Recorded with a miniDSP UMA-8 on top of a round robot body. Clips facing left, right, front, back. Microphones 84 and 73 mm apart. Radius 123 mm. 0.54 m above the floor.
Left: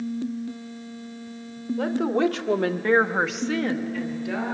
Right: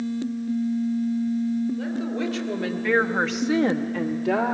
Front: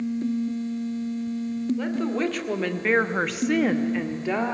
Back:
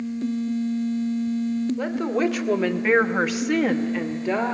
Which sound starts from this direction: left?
A woman speaking, at 1.8 s.